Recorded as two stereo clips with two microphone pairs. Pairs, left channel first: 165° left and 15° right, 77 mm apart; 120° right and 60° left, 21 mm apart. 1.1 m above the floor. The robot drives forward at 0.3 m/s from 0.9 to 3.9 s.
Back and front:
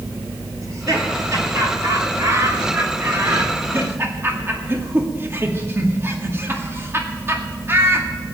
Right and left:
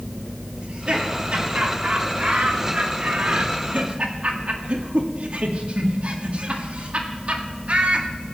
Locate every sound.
0.6 s laughter: 30° left, 2.5 m; by 8.1 s 45° left, 2 m